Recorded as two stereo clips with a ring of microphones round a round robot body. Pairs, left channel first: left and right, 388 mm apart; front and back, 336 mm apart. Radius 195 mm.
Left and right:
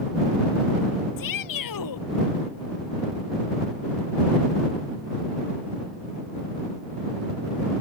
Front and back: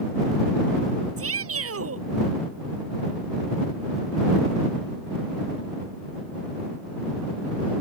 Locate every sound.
1.2 s a shout: 130° left